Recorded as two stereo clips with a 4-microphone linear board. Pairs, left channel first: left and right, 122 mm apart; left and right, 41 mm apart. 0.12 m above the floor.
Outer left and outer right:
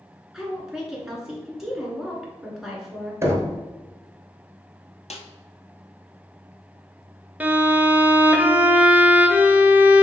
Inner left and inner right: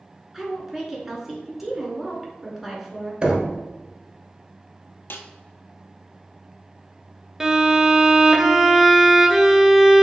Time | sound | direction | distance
0.3 | a woman speaking | 5° right (ahead or behind) | 1.4 m
3.2 | knocking | 25° right (ahead or behind) | 1.1 m
5.1 | a snare drum | 70° left (ahead or behind) | 0.6 m
7.4 | a violin | 15° right (ahead or behind) | 0.5 m